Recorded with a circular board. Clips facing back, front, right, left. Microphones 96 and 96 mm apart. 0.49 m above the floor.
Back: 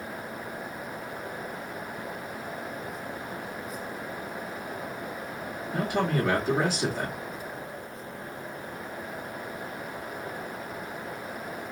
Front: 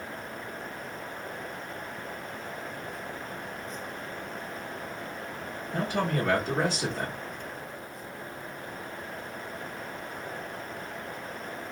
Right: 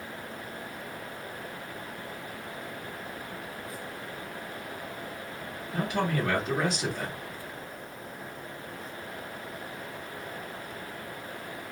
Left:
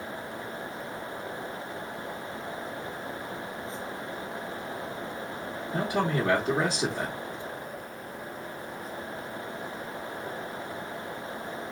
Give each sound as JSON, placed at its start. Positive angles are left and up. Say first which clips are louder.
{"t": 5.7, "sound": "a man speaking", "louder": "back 2 dB, left 1 dB", "azimuth_deg": 110, "distance_m": 1.4}